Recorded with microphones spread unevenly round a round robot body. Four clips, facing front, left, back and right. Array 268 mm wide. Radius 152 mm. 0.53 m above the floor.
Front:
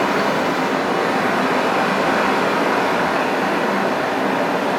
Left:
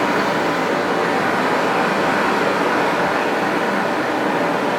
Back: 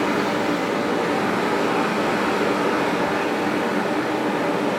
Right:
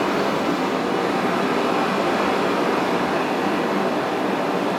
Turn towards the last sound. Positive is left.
turn(degrees=45)